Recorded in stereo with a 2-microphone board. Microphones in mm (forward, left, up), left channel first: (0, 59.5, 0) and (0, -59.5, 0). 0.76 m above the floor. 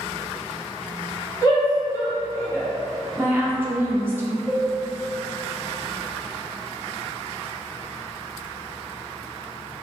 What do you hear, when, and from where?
1.4 s a shout: 35° left (ahead or behind), 1.4 m; by 2.7 s 15° left (ahead or behind), 0.7 m
3.2 s a woman speaking: 20° right (ahead or behind), 0.7 m
4.5 s a cowbell: 10° left (ahead or behind), 1.7 m